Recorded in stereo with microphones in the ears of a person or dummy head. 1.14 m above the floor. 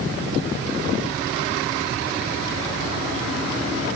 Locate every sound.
Only background noise.